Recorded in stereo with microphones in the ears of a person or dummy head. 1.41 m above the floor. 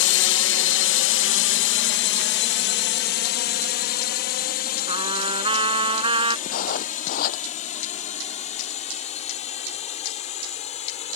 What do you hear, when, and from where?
0.0 s a drone: 60° left (ahead or behind); by 11.2 s 25° left (ahead or behind)
4.9 s a trumpet: 35° right (ahead or behind)
6.5 s writing: 55° left (ahead or behind)